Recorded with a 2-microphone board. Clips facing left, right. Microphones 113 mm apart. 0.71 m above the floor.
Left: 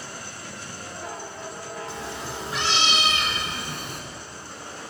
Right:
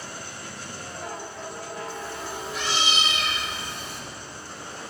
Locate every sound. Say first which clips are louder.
1.9 s a cat meowing: even; 85° left, 5 m; by 4.0 s 55° left (ahead or behind), 4 m